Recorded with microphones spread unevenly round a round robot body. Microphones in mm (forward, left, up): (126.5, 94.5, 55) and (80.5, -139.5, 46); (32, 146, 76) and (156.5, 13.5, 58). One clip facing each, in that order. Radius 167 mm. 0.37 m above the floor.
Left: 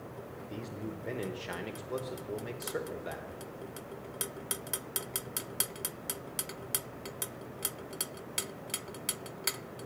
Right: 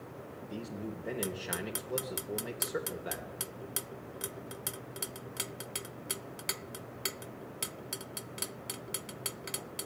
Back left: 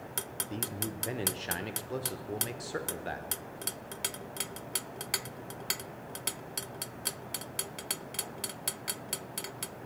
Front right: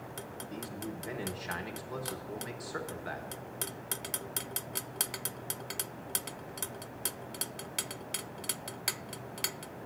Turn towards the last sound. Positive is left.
turn(degrees=180)